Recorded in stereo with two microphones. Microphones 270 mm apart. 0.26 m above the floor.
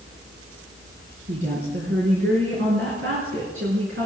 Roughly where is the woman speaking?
Right.